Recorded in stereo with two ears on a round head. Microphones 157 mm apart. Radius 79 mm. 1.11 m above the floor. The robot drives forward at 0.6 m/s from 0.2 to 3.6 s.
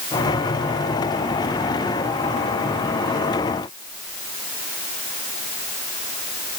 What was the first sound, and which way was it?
Only background noise.